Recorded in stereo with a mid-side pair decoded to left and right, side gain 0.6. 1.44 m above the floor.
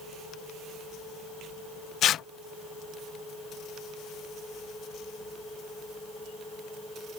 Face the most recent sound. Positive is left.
turn(degrees=50)